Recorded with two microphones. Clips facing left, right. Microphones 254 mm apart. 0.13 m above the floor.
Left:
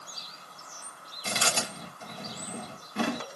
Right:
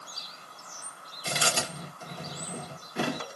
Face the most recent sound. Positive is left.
turn(degrees=-5)  # may be behind; listen again after turning